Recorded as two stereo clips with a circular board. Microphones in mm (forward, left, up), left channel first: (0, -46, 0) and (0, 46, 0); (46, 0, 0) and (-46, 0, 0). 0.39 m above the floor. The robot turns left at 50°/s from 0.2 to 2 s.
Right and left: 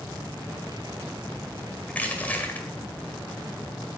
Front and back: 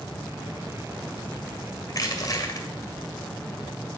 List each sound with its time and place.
1.9 s crushing: 20° right, 1.8 m; by 2.7 s 25° right, 1.8 m